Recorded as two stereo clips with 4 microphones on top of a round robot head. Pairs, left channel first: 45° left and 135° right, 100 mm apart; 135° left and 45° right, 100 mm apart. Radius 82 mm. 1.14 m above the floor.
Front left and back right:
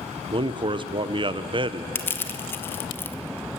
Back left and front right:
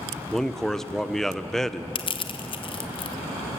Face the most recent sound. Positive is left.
turn(degrees=110)